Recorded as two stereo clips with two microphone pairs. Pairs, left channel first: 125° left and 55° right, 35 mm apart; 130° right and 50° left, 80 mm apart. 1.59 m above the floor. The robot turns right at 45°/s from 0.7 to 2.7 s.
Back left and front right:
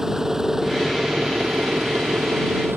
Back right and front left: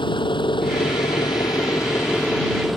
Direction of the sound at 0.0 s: 130° right.